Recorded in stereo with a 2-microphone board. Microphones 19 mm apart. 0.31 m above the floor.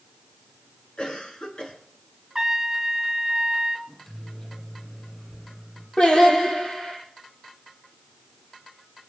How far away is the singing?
About 6 m.